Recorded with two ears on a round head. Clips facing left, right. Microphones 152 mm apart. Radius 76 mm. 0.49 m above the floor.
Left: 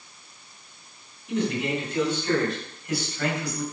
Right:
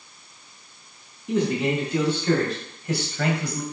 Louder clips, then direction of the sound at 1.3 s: Right 3 dB; 70° right (ahead or behind).